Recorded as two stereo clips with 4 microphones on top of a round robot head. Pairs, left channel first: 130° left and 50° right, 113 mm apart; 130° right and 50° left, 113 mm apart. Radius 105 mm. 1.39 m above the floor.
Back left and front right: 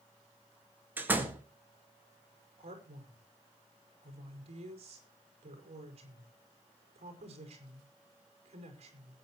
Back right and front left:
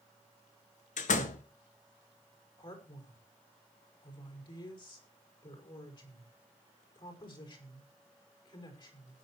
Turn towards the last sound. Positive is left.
turn(degrees=-80)